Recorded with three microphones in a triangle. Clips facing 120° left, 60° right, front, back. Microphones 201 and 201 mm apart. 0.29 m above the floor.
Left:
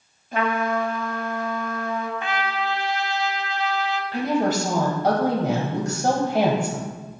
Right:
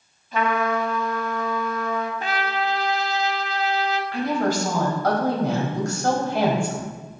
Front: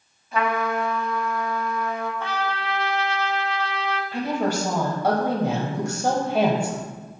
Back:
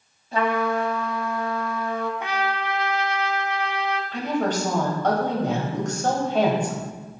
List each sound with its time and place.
0.3 s a trumpet: 130° left, 1.1 m
2.2 s a trumpet: 110° right, 0.6 m
4.1 s a woman speaking: 75° left, 1.1 m